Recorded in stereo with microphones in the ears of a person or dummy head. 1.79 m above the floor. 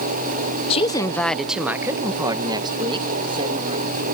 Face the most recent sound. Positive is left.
turn(degrees=-30)  # may be behind; listen again after turning